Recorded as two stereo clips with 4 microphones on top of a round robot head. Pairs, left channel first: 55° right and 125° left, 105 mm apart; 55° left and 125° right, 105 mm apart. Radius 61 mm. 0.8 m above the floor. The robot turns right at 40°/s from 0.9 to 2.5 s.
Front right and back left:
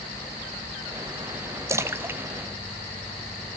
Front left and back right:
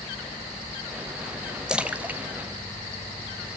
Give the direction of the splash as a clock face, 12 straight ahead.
7 o'clock.